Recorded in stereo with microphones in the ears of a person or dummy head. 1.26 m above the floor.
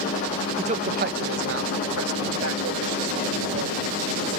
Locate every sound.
0.6 s a man speaking: 35° right (ahead or behind); by 4.4 s 60° right (ahead or behind)